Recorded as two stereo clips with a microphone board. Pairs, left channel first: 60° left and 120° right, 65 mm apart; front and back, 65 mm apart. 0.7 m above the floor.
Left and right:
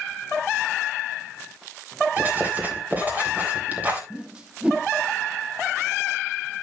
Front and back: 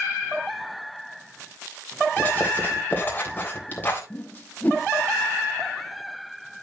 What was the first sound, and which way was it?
Writing, 60° right.